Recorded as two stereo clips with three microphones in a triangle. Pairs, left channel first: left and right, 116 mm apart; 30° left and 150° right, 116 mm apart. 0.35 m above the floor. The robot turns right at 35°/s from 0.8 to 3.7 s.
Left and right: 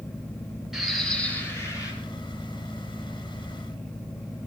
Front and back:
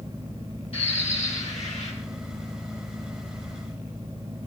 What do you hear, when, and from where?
0.7 s a bird: 5° right, 3 m; by 1.9 s 35° left, 3 m